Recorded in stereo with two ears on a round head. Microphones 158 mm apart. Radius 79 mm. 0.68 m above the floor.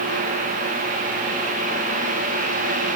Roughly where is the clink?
I don't hear a clink.